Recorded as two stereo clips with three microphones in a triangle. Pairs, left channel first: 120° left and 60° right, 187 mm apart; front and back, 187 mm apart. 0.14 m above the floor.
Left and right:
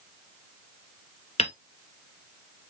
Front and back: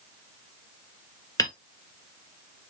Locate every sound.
1.4 s hammering: 65° left, 1.2 m